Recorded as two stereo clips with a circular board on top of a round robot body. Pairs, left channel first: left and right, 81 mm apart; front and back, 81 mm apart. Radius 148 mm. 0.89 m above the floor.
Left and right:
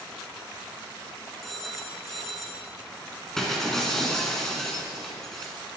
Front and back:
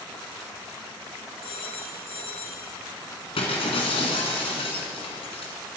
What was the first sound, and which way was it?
A phone ringing, straight ahead.